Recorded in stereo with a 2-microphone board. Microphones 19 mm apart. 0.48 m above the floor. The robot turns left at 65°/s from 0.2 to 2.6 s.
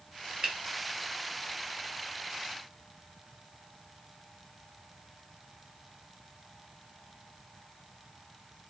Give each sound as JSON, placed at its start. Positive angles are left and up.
{"t": 0.4, "sound": "a finger snap", "side_deg": -45, "distance_m": 1.3}